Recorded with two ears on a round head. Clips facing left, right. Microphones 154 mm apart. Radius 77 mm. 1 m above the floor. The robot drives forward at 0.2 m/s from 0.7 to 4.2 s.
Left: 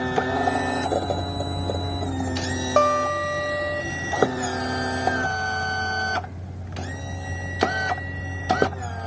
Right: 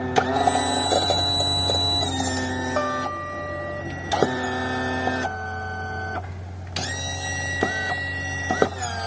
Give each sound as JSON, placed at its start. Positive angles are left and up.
{"t": 2.8, "sound": "a guitar", "side_deg": 65, "distance_m": 1.4}